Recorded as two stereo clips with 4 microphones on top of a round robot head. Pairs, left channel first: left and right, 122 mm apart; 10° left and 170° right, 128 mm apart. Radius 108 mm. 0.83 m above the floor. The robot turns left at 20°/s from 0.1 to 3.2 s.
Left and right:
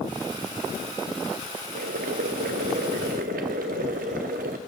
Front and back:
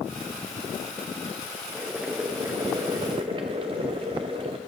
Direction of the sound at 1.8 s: 85° right.